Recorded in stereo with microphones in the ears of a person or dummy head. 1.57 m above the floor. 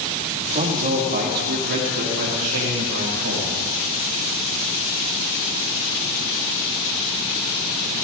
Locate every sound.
0.5 s a man speaking: 35° right (ahead or behind), 3.5 m; by 3.7 s 75° right (ahead or behind), 4 m